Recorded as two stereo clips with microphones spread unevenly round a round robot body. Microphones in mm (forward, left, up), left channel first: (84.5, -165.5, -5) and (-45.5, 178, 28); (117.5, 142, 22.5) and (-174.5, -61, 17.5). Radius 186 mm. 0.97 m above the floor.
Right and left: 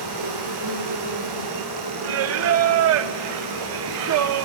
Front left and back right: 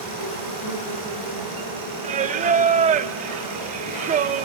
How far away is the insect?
About 8 m.